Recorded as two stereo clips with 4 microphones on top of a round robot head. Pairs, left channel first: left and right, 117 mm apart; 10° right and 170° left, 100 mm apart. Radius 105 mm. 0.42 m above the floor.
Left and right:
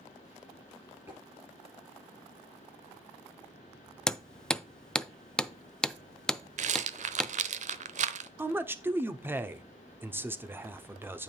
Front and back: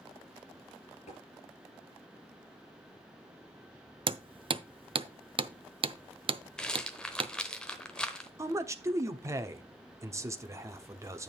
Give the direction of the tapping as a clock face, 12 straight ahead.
1 o'clock.